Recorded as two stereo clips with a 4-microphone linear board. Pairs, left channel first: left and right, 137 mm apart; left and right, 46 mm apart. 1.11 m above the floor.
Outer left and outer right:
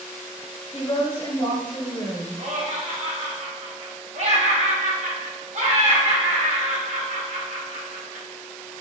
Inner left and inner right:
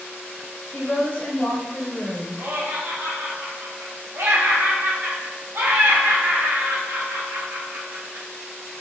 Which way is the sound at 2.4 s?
55° right (ahead or behind).